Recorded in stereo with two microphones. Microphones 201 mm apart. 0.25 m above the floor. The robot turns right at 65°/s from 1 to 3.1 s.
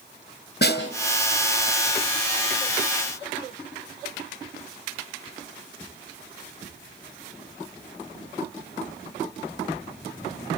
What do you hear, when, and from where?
0.6 s a snare drum: 55° left (ahead or behind), 2 m